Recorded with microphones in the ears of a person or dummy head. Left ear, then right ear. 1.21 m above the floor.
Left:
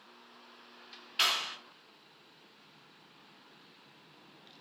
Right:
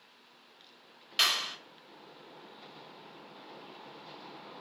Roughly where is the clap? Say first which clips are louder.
Right 2 dB; right.